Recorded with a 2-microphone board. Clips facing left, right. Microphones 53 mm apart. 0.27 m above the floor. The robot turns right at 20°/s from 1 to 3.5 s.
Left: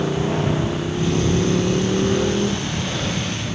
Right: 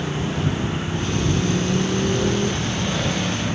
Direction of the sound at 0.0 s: 145° left.